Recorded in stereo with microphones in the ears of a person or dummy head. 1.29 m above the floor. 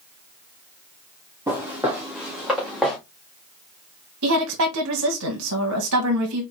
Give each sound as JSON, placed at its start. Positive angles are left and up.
{"t": 1.5, "sound": "footsteps", "side_deg": -10, "distance_m": 2.5}
{"t": 4.2, "sound": "a woman speaking", "side_deg": -80, "distance_m": 1.2}